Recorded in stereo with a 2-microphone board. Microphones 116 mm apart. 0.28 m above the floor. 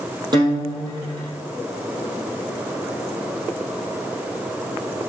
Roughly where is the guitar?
Right.